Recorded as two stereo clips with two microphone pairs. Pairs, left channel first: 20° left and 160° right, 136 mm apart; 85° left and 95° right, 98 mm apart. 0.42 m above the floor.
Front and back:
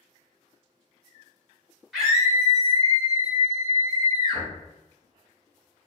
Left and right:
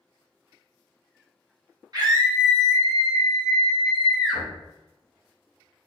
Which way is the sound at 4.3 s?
60° right.